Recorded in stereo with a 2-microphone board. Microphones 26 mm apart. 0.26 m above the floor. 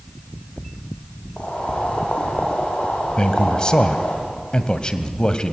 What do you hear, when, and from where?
1.4 s boiling: 60° left (ahead or behind), 6 m
3.2 s a man speaking: 30° left (ahead or behind), 1.4 m